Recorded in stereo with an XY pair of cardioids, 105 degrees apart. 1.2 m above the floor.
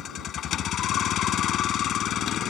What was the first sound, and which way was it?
A vehicle, 65° left.